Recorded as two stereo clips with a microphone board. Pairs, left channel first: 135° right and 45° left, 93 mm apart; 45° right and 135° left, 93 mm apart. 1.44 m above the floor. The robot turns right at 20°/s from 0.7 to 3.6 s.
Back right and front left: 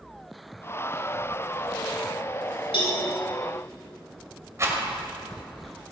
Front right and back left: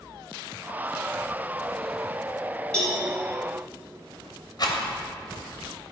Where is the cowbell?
125° right, 5 m; by 3.0 s 120° right, 5 m.